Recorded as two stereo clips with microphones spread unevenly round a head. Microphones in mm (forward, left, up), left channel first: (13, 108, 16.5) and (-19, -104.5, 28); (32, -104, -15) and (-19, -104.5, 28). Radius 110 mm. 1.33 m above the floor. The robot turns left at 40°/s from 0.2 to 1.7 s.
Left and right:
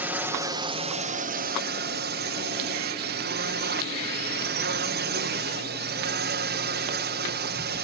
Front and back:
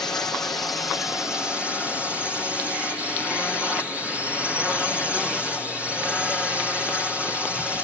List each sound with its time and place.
0.0 s a drone: 20° right; by 7.8 s 80° right